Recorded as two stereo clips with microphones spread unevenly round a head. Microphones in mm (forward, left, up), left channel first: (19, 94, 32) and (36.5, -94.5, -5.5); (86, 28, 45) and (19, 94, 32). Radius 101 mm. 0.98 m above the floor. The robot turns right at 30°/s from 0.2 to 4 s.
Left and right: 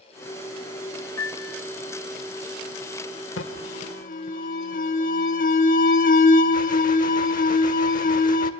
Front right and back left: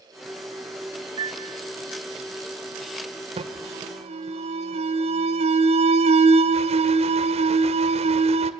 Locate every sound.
1.2 s a piano: 150° left, 0.6 m; by 1.6 s 165° left, 0.6 m
3.4 s an alarm: 130° left, 2 m; by 8.5 s 145° left, 2 m